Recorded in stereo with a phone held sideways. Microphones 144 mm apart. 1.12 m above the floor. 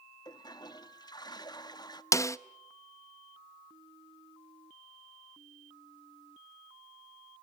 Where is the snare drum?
20° left (ahead or behind), 0.5 m.